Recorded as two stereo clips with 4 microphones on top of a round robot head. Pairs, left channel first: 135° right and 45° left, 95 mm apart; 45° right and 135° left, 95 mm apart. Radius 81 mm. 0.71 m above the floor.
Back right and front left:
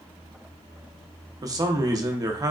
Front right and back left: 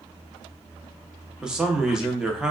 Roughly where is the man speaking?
Ahead left.